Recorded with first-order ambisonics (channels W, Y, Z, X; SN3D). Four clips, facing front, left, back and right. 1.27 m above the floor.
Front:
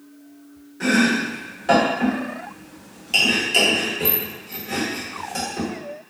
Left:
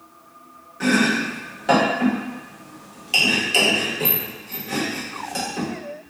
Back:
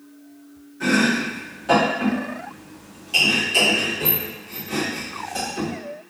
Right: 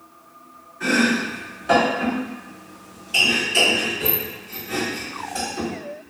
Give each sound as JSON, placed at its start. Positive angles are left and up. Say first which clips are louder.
{"t": 0.8, "sound": "chopping", "louder": "even, front 1 dB", "azimuth_deg": 70, "distance_m": 1.2}